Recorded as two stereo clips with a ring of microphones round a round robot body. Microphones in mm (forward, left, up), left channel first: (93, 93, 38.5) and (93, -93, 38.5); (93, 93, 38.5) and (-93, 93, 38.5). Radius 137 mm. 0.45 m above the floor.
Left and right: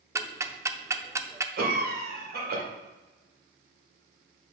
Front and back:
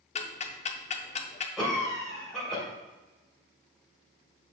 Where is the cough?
90° right, 1.9 m.